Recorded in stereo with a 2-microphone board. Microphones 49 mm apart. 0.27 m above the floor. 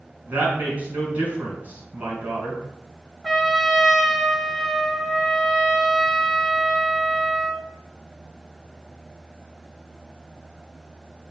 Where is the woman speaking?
35° right (ahead or behind), 3.5 m.